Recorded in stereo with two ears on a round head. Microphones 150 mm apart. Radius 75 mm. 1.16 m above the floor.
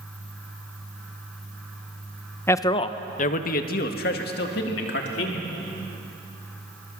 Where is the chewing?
I don't hear chewing.